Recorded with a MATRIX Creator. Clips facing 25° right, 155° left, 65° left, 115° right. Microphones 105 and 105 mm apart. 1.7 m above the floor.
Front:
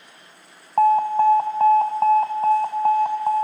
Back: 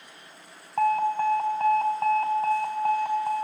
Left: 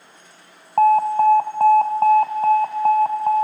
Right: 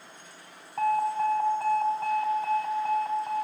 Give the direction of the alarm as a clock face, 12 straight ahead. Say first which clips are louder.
Front 7 dB, left 11 dB; 11 o'clock.